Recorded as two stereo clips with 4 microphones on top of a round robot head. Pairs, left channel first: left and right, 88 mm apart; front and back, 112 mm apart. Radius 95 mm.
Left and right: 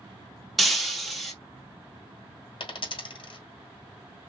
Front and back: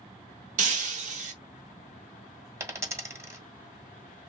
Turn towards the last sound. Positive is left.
turn(degrees=110)